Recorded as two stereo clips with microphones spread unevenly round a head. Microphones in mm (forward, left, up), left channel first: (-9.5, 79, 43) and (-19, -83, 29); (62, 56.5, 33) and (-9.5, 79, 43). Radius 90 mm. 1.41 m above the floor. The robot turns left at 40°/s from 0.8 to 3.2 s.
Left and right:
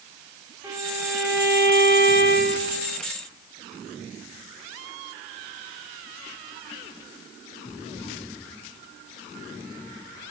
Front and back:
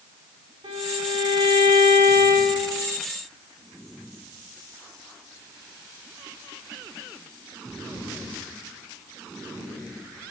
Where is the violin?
175° right, 4.5 m; by 3.0 s 100° left, 4.5 m.